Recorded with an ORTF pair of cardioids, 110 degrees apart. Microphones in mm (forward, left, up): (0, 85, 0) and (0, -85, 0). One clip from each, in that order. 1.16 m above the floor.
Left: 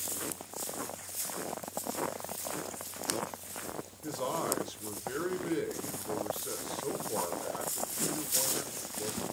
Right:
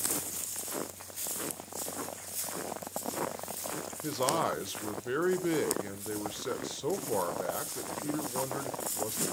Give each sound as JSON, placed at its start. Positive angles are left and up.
{"t": 4.0, "sound": "a man speaking", "azimuth_deg": -30, "distance_m": 0.7}